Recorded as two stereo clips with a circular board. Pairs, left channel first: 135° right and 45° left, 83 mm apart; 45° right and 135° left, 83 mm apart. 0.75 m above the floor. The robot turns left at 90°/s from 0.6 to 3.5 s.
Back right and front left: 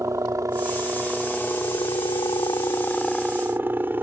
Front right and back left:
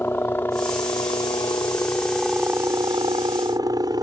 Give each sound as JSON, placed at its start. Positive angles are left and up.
{"t": 0.0, "sound": "a helicopter", "azimuth_deg": 10}